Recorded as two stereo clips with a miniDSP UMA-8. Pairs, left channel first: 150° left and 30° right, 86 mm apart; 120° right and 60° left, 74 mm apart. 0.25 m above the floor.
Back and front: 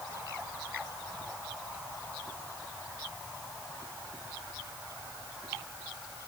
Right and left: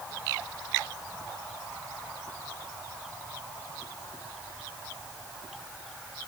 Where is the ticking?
I don't hear ticking.